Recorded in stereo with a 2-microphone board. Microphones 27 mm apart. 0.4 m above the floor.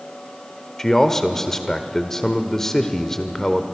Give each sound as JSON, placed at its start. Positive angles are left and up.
{"t": 0.8, "sound": "a man speaking", "side_deg": 15, "distance_m": 1.2}